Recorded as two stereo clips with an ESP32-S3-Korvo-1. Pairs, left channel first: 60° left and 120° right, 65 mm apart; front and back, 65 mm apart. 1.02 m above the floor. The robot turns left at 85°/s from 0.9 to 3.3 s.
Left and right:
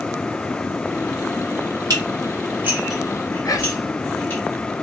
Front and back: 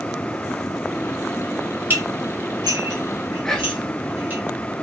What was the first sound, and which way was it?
Dishes clattering, 120° right.